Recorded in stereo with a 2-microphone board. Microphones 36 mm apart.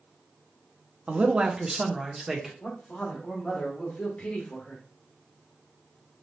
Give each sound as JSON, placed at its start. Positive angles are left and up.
{"t": 1.1, "sound": "a man speaking", "side_deg": -35, "distance_m": 0.7}
{"t": 2.6, "sound": "a man speaking", "side_deg": 40, "distance_m": 1.7}